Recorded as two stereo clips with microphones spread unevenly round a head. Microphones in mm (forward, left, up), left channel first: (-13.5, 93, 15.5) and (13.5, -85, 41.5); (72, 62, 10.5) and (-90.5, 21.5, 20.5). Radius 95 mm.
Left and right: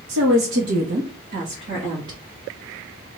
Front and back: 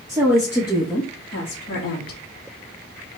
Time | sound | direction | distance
0.1 | a woman speaking | 90° right | 1.2 m